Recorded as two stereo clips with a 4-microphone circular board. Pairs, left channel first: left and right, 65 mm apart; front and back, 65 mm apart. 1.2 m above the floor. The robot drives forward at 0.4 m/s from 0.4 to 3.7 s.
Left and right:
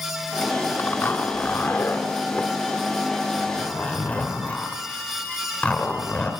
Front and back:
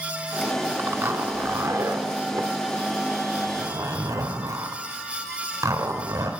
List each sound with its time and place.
0.8 s a zipper: 135° left, 1.3 m; by 6.3 s 160° left, 2 m